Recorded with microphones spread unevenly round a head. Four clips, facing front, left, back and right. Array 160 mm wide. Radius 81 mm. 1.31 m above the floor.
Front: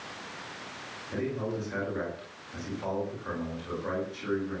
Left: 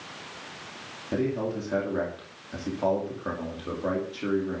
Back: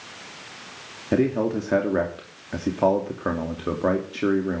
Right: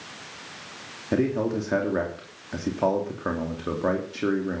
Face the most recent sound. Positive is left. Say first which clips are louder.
# right 4 dB, back 11 dB
turn(degrees=-160)